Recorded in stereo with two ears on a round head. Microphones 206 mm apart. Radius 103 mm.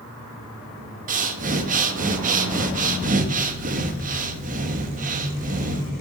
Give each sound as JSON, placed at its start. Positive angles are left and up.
{"t": 1.1, "sound": "breathing", "side_deg": -35, "distance_m": 1.1}